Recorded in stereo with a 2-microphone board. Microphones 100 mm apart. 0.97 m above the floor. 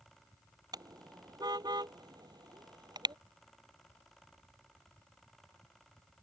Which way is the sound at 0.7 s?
40° right (ahead or behind).